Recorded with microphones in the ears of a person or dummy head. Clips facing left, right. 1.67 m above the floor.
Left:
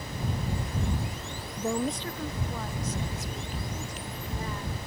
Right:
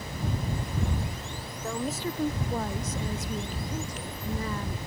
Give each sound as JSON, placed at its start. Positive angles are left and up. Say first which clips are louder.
{"t": 1.6, "sound": "a woman speaking", "louder": "left 3 dB", "side_deg": 20}